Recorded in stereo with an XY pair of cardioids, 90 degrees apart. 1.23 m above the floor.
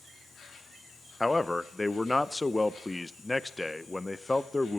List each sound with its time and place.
0.0 s an insect: 65° left, 3.5 m
1.2 s a man speaking: 15° left, 0.6 m